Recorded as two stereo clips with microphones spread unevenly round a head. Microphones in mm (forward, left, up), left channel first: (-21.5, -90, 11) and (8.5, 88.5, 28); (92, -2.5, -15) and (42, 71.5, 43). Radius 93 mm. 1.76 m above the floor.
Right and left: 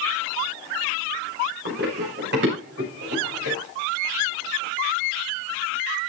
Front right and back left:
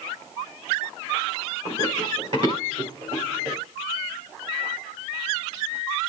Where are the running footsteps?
110° left, 8.5 m; by 3.6 s 100° left, 8.5 m.